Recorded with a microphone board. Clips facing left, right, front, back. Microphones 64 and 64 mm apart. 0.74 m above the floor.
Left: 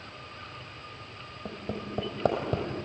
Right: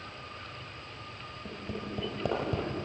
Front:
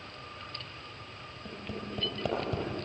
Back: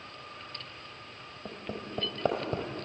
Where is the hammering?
125° left, 5 m.